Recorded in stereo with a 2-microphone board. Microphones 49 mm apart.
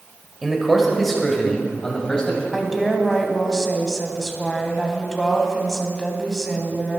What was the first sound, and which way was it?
A man speaking, 5° right (ahead or behind).